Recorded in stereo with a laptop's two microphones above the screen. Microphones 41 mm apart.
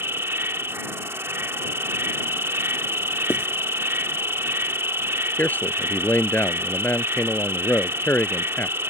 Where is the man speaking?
50° left (ahead or behind).